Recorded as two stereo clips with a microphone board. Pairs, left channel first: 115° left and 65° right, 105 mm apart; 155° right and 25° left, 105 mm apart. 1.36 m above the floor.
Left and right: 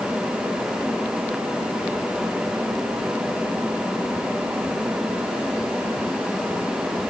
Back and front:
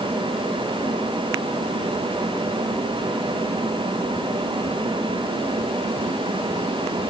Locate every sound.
Only background noise.